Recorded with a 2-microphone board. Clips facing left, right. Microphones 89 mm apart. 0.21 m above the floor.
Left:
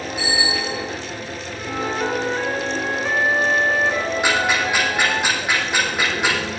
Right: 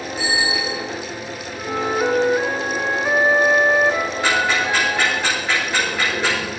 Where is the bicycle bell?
Centre (ahead or behind), 7 m.